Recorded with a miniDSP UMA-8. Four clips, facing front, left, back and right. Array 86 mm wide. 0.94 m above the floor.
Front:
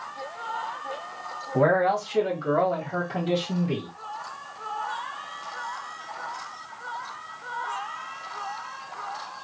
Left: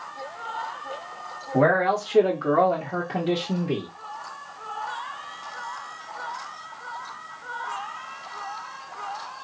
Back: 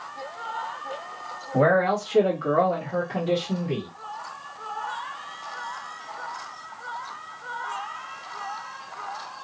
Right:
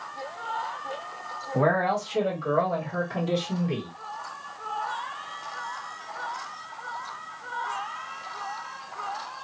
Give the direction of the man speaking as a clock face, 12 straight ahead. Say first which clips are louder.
Left 3 dB, back 1 dB; 8 o'clock.